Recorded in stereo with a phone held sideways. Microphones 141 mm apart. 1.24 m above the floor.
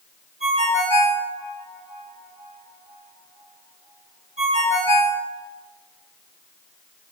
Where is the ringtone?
55° right (ahead or behind), 5 m.